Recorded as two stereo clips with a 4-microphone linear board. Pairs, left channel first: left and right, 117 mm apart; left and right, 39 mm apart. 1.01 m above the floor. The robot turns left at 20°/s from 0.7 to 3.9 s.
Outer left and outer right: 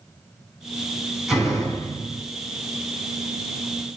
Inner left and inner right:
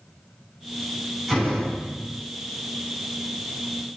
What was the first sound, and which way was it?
A door slam, 5° right (ahead or behind).